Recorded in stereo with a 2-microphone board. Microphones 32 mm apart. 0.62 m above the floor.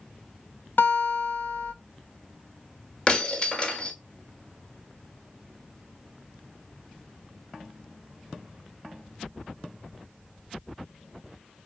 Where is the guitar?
75° left (ahead or behind), 0.7 m.